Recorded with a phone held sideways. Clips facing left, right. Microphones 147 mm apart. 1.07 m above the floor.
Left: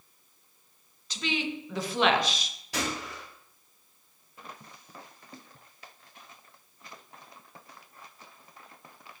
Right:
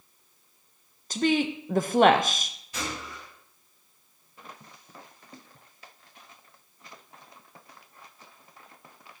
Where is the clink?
No clink in this recording.